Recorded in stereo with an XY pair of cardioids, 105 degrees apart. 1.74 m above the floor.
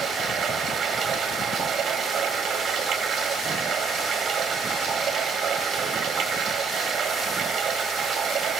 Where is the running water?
65° right, 3 m.